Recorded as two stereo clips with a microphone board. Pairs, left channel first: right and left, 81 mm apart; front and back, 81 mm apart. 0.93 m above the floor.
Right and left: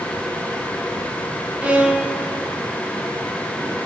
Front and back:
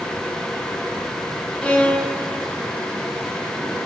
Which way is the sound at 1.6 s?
45° left.